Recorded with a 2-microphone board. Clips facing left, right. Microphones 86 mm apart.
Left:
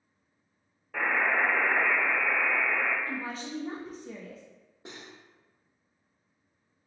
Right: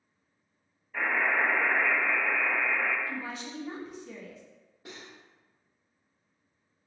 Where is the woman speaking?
35° left (ahead or behind), 0.7 m.